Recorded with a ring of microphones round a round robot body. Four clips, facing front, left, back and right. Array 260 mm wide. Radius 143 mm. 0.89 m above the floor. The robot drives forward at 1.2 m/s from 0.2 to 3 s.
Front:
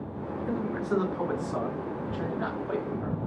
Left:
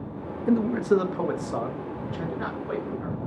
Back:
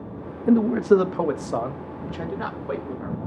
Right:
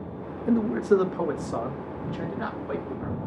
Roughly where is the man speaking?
Behind.